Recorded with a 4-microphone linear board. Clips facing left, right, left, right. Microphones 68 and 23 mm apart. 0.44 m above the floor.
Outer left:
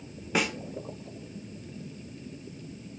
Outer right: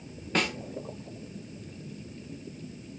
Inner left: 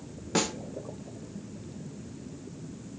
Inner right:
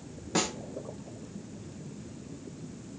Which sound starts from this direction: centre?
A snare drum, at 0.3 s.